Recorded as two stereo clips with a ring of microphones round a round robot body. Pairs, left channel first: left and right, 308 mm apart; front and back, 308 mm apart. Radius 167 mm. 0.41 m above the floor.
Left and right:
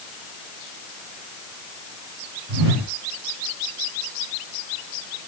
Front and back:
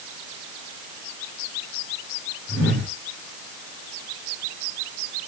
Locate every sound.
2.5 s a whoosh: 80° right, 5.5 m